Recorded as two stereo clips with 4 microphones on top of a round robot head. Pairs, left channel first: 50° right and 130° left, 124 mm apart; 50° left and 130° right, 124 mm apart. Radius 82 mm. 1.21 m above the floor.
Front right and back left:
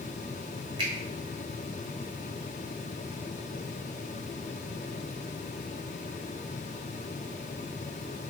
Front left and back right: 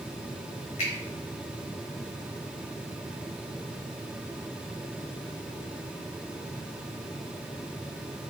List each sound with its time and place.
0.8 s a finger snap: 80° left, 1.3 m